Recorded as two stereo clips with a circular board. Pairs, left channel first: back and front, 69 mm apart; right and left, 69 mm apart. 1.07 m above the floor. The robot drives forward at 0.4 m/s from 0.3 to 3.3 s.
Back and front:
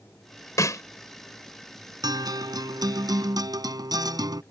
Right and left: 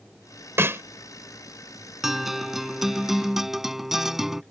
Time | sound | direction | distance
0.6 | a snare drum | 145° left | ?
2.0 | a guitar | 5° left | ?